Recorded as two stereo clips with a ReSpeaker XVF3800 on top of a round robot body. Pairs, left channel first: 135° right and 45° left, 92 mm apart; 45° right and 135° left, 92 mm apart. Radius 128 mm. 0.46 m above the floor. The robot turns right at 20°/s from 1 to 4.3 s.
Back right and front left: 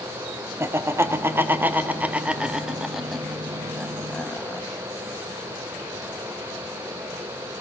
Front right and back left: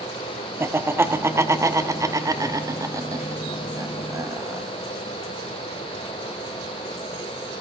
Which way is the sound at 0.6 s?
90° left.